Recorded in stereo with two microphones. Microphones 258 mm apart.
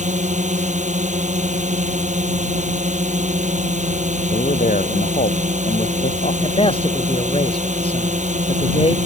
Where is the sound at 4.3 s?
30° left (ahead or behind).